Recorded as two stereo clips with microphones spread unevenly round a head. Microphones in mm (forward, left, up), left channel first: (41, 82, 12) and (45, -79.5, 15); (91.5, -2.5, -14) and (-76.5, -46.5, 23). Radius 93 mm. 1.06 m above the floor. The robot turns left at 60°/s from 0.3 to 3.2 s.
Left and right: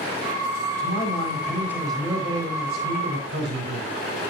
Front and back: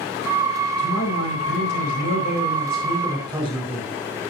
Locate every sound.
0.8 s a man speaking: 70° left, 4 m; by 3.9 s 80° right, 4 m